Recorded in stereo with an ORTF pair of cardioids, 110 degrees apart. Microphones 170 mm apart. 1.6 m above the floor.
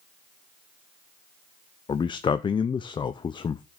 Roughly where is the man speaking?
Ahead left.